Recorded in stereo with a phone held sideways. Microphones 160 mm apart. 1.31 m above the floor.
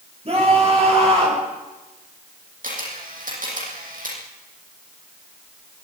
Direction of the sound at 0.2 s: 40° right (ahead or behind).